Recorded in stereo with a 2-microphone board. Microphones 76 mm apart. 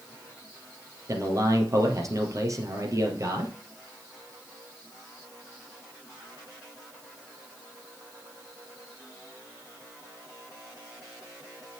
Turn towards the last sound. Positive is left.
turn(degrees=-45)  # may be behind; listen again after turning